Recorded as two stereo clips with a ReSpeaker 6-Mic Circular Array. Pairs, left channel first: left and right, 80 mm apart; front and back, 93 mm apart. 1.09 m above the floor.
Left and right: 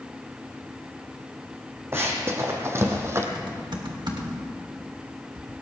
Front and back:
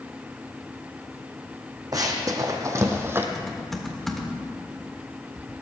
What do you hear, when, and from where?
1.9 s running footsteps: 140° right, 2 m; by 3.2 s 130° right, 1.5 m
3.4 s typing on a keyboard: 90° right, 1.8 m